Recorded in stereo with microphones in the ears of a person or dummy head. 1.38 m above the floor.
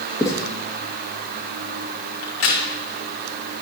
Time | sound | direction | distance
0.2 | writing | 15° left (ahead or behind) | 1.5 m
2.2 | a crack | 65° left (ahead or behind) | 1.7 m